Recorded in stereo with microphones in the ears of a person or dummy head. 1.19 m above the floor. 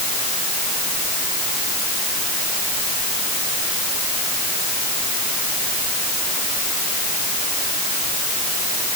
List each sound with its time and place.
Only background noise.